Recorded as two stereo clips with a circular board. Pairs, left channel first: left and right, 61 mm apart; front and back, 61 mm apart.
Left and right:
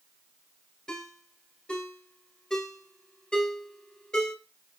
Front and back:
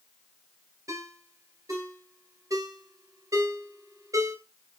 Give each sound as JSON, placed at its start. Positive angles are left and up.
{"t": 0.9, "sound": "a ringtone", "azimuth_deg": 170, "distance_m": 2.5}